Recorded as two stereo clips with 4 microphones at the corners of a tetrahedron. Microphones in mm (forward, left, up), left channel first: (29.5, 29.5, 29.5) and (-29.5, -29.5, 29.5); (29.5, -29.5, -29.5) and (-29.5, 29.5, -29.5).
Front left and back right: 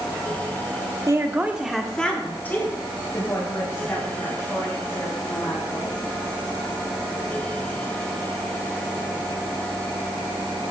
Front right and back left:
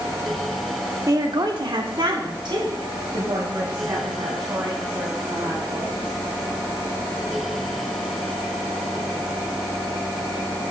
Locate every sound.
1.1 s a woman speaking: 175° left, 1.4 m; by 6.0 s 90° left, 7.5 m